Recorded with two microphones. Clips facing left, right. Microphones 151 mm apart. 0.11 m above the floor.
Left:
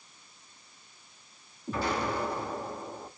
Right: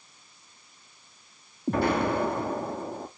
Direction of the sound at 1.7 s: 60° right (ahead or behind).